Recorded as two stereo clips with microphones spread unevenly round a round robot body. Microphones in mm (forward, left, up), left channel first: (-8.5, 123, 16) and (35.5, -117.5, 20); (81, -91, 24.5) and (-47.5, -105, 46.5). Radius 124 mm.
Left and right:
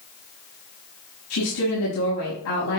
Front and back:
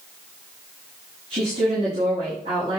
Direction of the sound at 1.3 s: 125° left.